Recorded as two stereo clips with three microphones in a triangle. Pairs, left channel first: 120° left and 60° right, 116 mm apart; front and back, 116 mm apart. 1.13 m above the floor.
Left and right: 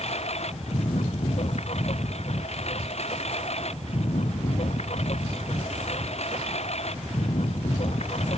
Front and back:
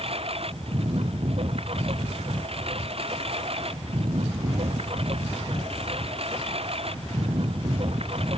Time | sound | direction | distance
0.0 | a lawn mower | 145° left | ?